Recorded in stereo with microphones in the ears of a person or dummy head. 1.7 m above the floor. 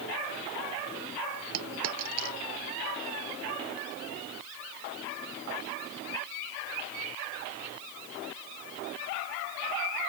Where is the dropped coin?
75° right (ahead or behind).